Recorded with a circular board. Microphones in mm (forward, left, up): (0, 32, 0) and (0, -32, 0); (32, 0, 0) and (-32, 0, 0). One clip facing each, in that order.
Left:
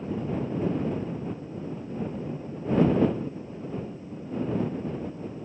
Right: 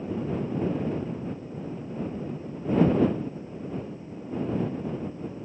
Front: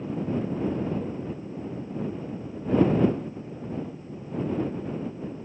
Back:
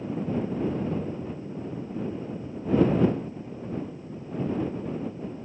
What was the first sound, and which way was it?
Only background noise.